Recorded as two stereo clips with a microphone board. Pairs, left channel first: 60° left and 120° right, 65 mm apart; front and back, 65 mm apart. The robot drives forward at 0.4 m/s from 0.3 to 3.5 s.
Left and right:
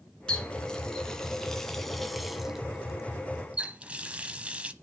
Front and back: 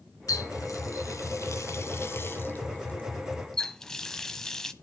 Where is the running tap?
15° right, 1.6 m; by 4.7 s 75° right, 0.8 m.